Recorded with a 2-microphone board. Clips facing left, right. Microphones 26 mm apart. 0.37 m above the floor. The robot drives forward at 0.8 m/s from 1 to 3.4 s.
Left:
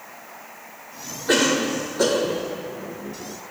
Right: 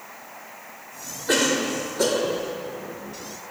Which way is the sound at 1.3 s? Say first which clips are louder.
Left 2 dB; 10° left (ahead or behind).